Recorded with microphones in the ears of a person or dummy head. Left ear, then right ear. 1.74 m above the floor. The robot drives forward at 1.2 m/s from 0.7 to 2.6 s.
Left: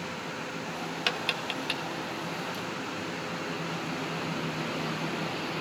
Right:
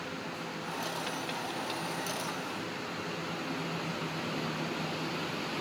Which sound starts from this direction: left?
Tapping, at 1.1 s.